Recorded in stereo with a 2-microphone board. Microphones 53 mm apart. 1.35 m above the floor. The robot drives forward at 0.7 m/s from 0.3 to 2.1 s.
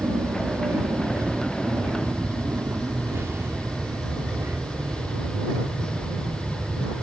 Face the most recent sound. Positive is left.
turn(degrees=-55)  # may be behind; listen again after turning